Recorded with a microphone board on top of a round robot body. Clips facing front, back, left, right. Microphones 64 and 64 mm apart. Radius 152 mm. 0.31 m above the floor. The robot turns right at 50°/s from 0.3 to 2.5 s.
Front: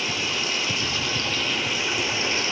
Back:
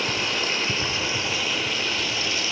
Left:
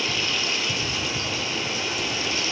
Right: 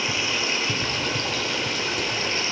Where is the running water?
155° right, 2.0 m; by 2.5 s 45° right, 2.0 m.